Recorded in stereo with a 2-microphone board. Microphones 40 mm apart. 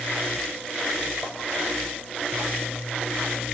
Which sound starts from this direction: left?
Tapping, at 1.2 s.